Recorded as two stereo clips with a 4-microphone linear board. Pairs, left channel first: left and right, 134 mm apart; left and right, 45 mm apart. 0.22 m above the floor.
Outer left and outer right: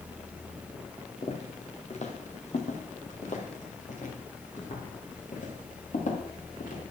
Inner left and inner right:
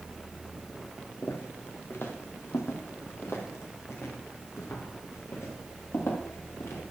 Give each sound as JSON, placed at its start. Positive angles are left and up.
{"t": 1.2, "sound": "footsteps", "side_deg": 50, "distance_m": 2.0}